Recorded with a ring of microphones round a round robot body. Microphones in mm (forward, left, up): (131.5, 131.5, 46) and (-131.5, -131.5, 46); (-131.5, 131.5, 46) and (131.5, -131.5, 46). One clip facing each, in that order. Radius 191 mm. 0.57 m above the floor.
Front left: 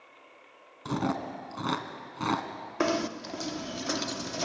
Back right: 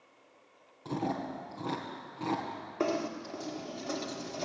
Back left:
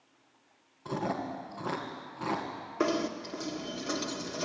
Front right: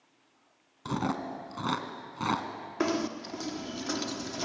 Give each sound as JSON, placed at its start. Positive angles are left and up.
{"t": 0.8, "sound": "chewing", "azimuth_deg": -5, "distance_m": 2.0}
{"t": 2.8, "sound": "knocking", "azimuth_deg": 25, "distance_m": 1.3}